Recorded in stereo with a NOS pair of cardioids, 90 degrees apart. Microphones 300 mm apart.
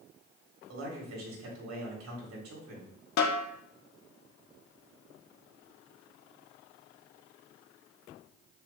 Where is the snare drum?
70° left, 1.3 m.